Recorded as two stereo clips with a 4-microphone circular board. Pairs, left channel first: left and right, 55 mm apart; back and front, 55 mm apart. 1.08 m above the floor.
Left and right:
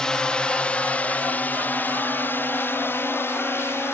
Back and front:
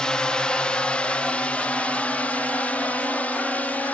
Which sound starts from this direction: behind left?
A drone, at 0.0 s.